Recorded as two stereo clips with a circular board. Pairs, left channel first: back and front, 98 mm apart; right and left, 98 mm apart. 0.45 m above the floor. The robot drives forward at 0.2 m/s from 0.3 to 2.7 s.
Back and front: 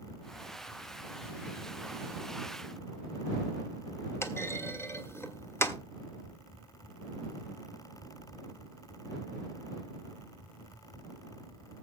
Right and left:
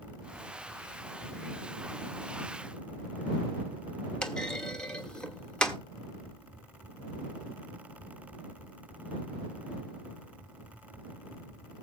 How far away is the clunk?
About 1.4 m.